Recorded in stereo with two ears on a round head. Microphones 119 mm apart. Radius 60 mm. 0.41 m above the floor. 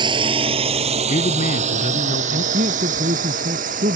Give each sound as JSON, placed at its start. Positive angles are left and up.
{"t": 0.0, "sound": "a drone", "side_deg": -35}
{"t": 1.1, "sound": "a man speaking", "side_deg": 55}
{"t": 2.5, "sound": "a man speaking", "side_deg": -60}